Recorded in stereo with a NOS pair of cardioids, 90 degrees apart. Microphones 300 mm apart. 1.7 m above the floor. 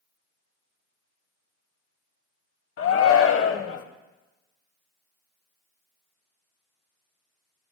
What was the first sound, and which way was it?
A shout, 50° left.